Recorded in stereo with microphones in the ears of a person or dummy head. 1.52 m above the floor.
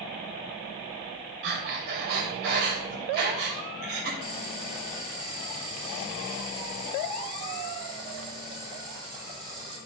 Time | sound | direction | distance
1.4 | breathing | 55° right (ahead or behind) | 2.5 m
4.2 | boiling | 25° right (ahead or behind) | 7 m